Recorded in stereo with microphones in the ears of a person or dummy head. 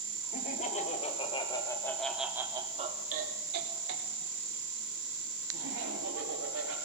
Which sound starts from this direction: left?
Laughter, at 0.3 s.